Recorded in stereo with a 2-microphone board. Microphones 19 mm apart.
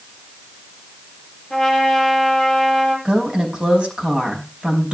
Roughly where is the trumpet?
Centre.